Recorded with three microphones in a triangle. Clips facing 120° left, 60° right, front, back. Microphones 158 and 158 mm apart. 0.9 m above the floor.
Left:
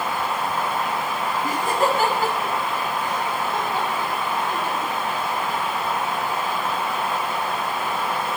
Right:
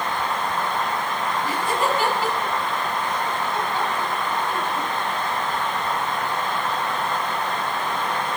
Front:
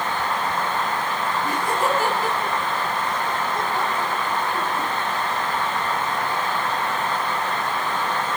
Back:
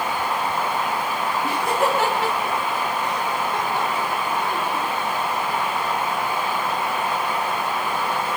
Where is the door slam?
No door slam in this recording.